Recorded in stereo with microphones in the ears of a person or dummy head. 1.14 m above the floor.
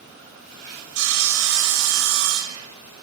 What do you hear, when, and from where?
0.9 s sawing: 70° right (ahead or behind), 4.5 m